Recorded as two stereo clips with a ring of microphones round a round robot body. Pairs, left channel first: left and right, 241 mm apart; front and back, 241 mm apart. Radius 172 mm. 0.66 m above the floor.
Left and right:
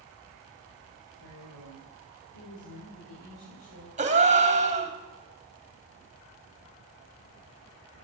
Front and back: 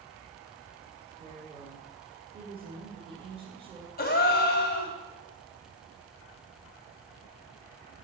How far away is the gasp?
About 1.1 m.